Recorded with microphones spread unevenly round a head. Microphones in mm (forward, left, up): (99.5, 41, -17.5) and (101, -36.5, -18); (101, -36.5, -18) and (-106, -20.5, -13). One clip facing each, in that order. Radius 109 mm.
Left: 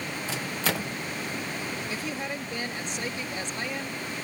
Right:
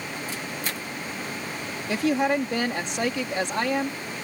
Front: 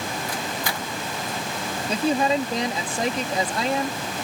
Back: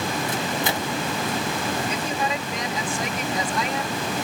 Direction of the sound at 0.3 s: 105° left.